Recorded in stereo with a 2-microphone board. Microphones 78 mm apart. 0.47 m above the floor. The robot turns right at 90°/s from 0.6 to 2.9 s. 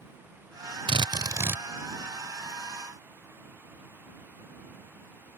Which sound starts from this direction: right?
A drill, at 0.9 s.